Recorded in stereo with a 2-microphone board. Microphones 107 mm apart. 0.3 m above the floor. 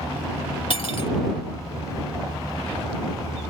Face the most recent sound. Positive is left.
turn(degrees=55)  # may be behind; listen again after turning